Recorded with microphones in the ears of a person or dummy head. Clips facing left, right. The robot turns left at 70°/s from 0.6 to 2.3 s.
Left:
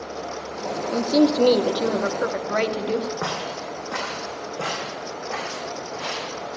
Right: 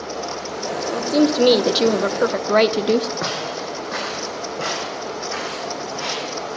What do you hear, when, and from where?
0.9 s a woman speaking: 25° left, 0.6 m; by 3.1 s 70° right, 0.6 m
3.2 s footsteps: 25° right (ahead or behind), 3.5 m; by 6.3 s 15° right (ahead or behind), 5.5 m